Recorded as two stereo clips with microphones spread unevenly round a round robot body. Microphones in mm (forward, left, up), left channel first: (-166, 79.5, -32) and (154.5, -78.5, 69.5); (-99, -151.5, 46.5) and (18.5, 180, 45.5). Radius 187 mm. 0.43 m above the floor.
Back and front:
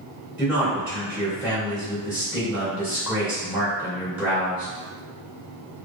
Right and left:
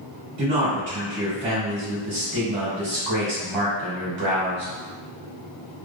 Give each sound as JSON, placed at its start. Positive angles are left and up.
{"t": 0.4, "sound": "a man speaking", "azimuth_deg": 80, "distance_m": 1.6}